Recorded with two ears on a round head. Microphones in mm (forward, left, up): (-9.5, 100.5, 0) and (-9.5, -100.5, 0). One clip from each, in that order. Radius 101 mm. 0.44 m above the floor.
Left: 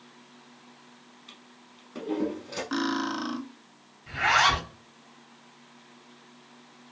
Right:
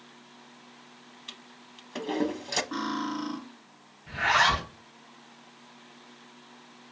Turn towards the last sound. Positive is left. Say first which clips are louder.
# left 1 dB
turn(degrees=20)  # may be behind; listen again after turning